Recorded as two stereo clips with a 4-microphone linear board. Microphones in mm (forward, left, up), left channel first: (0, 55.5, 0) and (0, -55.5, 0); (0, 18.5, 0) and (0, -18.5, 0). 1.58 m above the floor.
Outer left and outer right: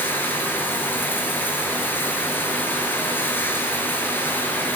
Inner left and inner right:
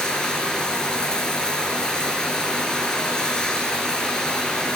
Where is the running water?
20° left (ahead or behind), 6 m.